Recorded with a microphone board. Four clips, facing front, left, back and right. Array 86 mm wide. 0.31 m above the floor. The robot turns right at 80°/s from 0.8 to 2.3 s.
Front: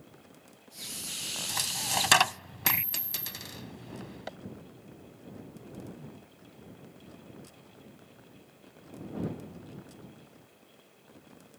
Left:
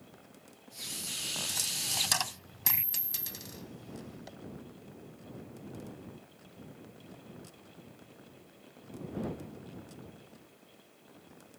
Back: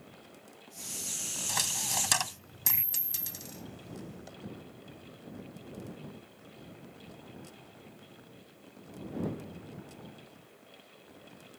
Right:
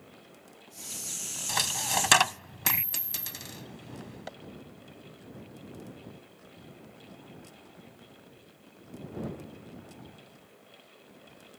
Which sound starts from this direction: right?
A dropped coin, at 1.5 s.